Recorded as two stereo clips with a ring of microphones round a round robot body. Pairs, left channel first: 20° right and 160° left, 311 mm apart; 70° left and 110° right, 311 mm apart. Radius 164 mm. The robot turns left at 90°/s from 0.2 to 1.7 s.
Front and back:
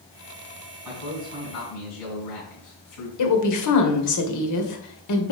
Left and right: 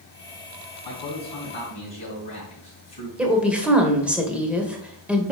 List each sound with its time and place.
0.8 s a man speaking: 75° left, 4 m; by 3.1 s 5° right, 4 m
3.2 s a woman speaking: 25° right, 1.7 m